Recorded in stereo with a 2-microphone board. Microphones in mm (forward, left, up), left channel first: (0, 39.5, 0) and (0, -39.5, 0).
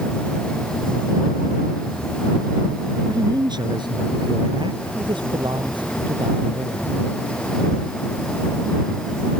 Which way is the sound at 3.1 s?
60° right (ahead or behind).